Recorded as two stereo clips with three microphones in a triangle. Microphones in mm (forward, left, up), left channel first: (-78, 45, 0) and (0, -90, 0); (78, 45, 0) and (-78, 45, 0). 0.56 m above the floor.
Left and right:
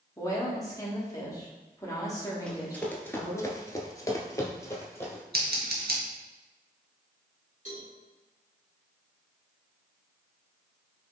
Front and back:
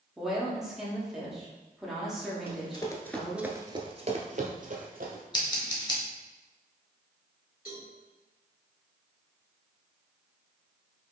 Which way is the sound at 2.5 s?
40° left.